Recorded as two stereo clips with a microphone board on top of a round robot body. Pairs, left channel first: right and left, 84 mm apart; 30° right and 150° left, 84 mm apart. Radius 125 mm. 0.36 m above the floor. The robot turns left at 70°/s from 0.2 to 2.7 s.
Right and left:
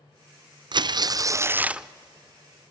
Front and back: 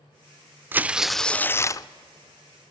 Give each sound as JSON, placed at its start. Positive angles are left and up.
{"t": 0.7, "sound": "tearing paper", "azimuth_deg": 90, "distance_m": 0.5}